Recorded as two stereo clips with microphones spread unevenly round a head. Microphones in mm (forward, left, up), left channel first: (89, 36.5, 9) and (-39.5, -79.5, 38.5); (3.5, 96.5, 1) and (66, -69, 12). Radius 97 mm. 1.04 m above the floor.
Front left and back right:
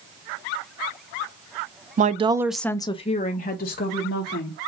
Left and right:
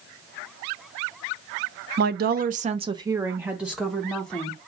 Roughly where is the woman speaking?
Right.